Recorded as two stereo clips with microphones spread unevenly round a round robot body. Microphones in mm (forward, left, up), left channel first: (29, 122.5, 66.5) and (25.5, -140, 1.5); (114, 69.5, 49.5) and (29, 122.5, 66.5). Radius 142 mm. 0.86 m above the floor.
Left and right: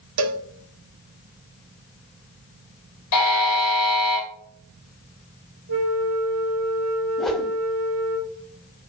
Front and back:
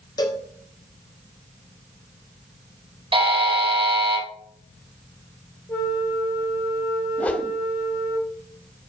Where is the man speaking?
I don't hear a man speaking.